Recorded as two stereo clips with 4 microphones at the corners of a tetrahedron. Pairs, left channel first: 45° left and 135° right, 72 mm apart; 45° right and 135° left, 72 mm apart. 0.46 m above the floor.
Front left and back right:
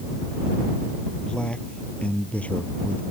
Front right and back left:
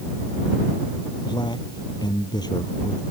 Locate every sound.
1.2 s a man speaking: 30° right; by 3.0 s 25° right